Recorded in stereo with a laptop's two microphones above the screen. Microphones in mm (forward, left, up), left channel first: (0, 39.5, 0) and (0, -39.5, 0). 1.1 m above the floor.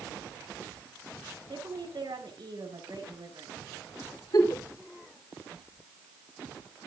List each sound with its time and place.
1.5 s a woman speaking: 70° right (ahead or behind), 7 m
4.3 s a giggle: 60° left (ahead or behind), 3 m